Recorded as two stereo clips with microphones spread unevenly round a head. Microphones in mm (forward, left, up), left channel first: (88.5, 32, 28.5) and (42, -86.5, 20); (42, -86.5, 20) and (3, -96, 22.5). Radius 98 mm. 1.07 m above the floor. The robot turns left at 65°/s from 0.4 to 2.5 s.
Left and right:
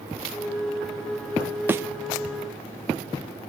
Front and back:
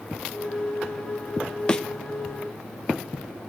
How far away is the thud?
About 0.5 m.